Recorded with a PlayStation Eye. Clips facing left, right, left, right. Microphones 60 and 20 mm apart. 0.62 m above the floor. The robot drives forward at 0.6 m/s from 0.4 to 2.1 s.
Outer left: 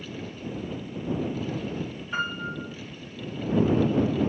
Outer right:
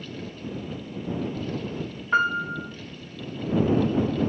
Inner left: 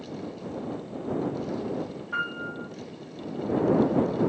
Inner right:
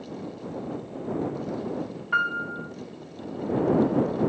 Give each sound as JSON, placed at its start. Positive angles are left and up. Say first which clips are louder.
{"t": 2.1, "sound": "a piano", "louder": "outer right 8 dB, inner right 6 dB", "side_deg": -60, "distance_m": 0.9}